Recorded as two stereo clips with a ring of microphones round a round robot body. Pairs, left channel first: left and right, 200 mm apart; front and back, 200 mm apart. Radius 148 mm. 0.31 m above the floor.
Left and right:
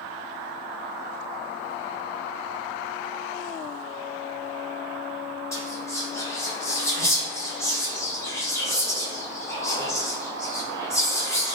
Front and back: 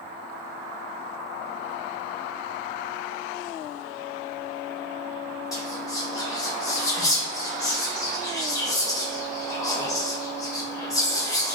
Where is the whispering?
40° left, 0.9 m.